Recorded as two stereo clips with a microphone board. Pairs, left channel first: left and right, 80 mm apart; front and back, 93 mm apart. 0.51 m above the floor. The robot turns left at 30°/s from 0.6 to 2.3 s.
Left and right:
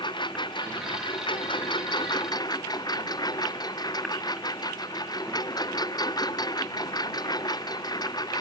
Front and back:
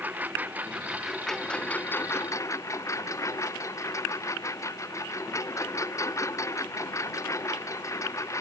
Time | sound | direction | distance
0.0 | a lawn mower | 110° left | ?